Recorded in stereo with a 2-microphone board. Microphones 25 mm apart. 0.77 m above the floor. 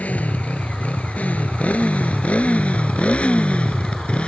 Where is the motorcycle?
75° left (ahead or behind); by 4.3 s 50° left (ahead or behind).